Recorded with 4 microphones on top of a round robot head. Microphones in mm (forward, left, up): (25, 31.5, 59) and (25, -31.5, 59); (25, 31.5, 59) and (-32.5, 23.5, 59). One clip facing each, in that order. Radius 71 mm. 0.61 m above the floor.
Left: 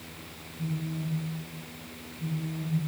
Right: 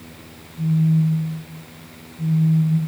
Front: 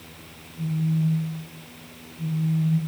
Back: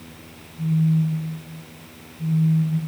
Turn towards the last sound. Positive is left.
turn(degrees=-40)